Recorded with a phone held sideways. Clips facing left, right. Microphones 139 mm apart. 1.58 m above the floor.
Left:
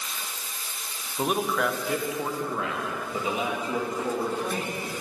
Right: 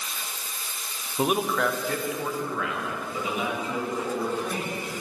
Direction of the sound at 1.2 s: 15° right (ahead or behind).